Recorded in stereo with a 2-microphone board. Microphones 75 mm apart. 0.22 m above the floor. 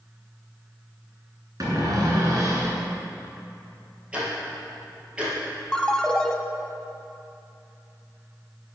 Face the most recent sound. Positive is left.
turn(degrees=10)  # may be behind; listen again after turning